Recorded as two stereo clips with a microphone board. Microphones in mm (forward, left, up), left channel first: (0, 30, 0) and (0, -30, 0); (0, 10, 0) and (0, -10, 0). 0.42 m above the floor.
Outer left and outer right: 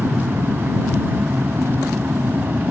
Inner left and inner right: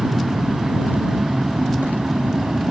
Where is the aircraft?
40° right (ahead or behind); by 2.7 s 35° right (ahead or behind).